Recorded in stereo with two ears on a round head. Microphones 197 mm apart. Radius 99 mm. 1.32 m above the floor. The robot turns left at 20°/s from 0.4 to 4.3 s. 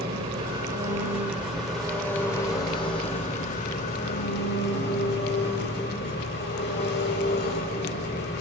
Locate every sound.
0.0 s an engine running: 155° right, 4.5 m; by 8.4 s 130° left, 4.5 m